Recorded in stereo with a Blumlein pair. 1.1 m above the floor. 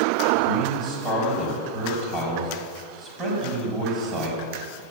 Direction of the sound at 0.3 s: 20° right.